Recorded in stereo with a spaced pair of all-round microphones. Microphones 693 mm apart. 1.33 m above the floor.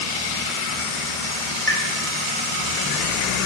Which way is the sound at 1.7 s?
35° right (ahead or behind).